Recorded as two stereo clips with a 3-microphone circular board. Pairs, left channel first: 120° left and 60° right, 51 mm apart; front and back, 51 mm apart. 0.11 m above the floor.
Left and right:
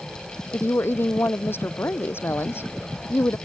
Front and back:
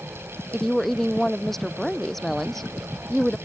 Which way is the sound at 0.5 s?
85° left.